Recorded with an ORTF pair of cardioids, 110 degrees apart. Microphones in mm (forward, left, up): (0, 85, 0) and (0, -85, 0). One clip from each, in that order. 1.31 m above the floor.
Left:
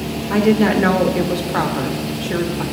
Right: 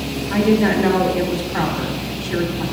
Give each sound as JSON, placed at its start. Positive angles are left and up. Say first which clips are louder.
{"t": 0.3, "sound": "a woman speaking", "louder": "left 1 dB", "azimuth_deg": 50, "distance_m": 1.5}